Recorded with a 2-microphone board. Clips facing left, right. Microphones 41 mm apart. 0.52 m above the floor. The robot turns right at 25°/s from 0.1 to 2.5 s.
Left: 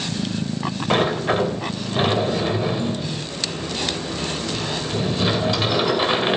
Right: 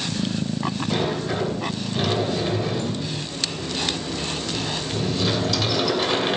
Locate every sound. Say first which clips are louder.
0.9 s a sliding door: left 8 dB; 110° left, 2 m; by 6.4 s 150° left, 2 m